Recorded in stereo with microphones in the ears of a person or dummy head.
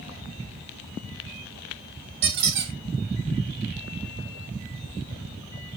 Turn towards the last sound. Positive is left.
turn(degrees=-60)  # may be behind; listen again after turning